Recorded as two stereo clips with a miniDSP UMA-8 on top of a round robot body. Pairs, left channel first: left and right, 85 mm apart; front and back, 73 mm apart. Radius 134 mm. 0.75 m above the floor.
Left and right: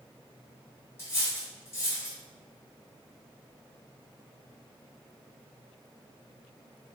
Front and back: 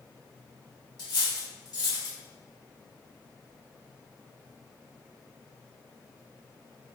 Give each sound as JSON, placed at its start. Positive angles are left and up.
{"t": 1.0, "sound": "cutlery clinking", "azimuth_deg": 25, "distance_m": 1.3}